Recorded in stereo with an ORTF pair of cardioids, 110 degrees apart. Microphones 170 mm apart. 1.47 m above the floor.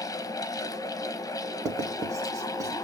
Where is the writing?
20° right, 0.9 m.